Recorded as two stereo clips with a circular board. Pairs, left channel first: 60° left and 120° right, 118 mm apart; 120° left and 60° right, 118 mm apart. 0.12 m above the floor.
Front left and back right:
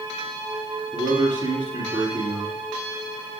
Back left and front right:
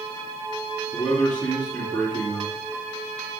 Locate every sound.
0.9 s a man speaking: 165° right, 3 m